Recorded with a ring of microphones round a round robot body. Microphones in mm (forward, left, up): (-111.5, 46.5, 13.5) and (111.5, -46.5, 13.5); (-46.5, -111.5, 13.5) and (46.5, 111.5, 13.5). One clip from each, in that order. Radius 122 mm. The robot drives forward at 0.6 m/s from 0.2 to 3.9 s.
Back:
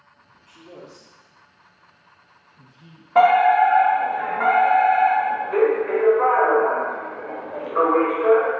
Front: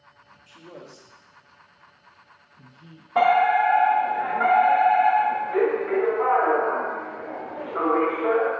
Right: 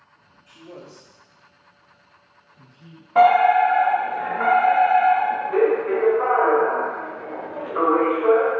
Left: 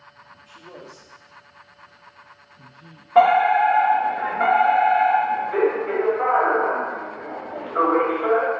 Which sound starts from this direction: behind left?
A fire alarm, at 3.1 s.